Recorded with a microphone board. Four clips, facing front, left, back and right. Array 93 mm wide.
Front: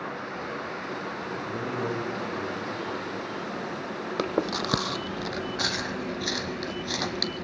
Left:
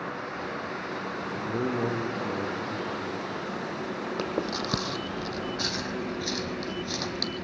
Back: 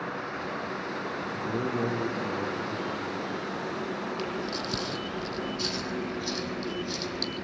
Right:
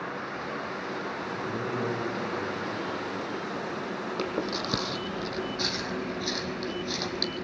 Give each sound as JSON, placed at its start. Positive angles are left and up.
{"t": 1.3, "sound": "a man speaking", "azimuth_deg": 125, "distance_m": 4.5}
{"t": 4.2, "sound": "chewing", "azimuth_deg": 5, "distance_m": 1.3}